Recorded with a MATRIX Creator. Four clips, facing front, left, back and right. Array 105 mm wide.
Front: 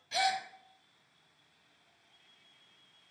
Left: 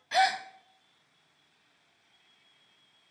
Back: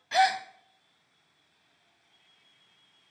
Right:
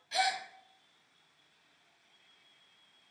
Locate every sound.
0.1 s a gasp: 140° left, 0.6 m